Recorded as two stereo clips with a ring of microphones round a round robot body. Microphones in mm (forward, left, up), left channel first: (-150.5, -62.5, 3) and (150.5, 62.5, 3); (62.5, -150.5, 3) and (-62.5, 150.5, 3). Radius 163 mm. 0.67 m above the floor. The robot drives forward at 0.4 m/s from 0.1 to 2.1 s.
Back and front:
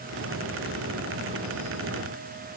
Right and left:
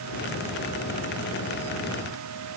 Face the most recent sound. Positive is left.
No sound to turn to.